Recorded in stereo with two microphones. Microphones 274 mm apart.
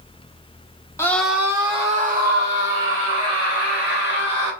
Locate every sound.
1.0 s a scream: 10° left (ahead or behind), 1.2 m; by 4.5 s 65° right (ahead or behind), 3 m